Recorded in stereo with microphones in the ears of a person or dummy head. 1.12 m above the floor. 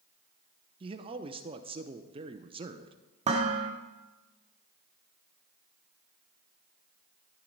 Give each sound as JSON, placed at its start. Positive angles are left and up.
{"t": 0.8, "sound": "a man speaking", "side_deg": -25, "distance_m": 0.6}
{"t": 3.2, "sound": "dishes clattering", "side_deg": -35, "distance_m": 1.4}